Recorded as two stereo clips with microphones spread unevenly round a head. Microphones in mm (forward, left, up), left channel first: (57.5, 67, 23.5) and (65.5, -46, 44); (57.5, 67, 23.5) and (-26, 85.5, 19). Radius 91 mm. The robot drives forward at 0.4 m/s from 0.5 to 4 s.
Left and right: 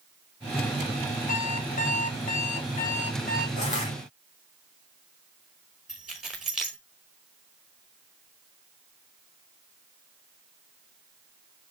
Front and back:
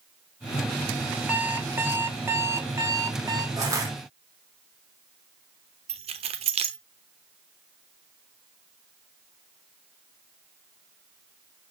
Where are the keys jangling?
170° right, 0.9 m.